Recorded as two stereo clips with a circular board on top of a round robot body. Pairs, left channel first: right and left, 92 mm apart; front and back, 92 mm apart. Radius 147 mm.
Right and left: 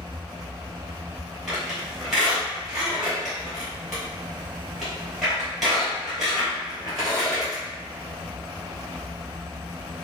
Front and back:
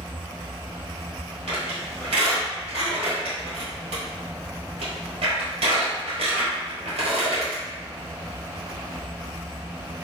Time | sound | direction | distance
1.5 | a squeak | straight behind | 1.5 m